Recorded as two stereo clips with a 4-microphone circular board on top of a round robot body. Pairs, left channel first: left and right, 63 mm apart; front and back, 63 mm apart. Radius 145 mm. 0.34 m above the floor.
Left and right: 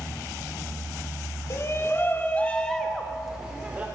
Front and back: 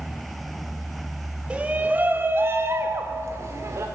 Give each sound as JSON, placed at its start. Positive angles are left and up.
{"t": 1.5, "sound": "a shout", "azimuth_deg": 115, "distance_m": 1.3}